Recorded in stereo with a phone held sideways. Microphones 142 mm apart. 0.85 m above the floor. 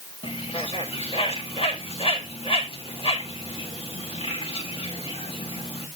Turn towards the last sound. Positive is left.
turn(degrees=40)  # may be behind; listen again after turning